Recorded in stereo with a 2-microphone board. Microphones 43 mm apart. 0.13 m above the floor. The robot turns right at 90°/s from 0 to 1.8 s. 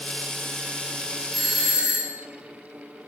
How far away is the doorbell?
About 1.8 m.